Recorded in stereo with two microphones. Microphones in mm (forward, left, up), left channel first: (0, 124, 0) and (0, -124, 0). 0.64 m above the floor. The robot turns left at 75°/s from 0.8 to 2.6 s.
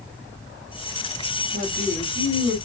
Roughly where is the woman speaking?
Behind right.